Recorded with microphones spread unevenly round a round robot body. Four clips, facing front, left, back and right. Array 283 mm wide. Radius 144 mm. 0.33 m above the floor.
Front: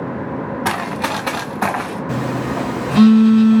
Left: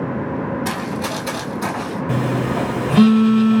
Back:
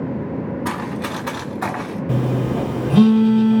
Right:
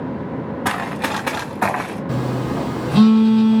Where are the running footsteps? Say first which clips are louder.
Right 1 dB, front 4 dB; 30° right, 3 m; by 2.0 s 50° right, 2.5 m.